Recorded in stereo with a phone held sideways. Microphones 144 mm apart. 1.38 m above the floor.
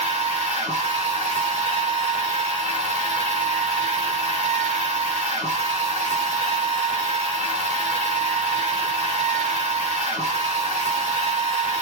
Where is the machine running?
50° right (ahead or behind), 1.8 m.